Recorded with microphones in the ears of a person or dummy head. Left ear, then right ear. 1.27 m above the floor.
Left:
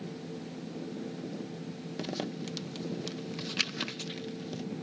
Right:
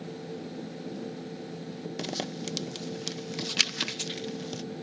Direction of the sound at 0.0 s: 35° right (ahead or behind).